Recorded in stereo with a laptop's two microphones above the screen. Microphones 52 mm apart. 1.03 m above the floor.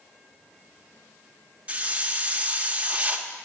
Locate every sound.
1.7 s a hiss: 25° right (ahead or behind), 0.8 m